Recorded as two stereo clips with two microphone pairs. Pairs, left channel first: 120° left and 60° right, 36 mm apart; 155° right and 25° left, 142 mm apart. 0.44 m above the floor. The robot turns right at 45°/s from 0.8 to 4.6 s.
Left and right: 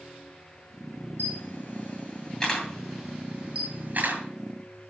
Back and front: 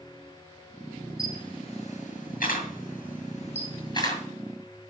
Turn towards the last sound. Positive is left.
turn(degrees=-70)